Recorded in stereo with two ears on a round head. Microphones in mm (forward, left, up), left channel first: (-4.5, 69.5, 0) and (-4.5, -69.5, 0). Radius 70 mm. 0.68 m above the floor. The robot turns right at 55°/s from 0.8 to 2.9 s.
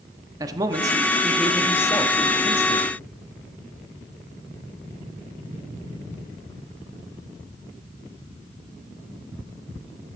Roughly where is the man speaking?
Ahead right.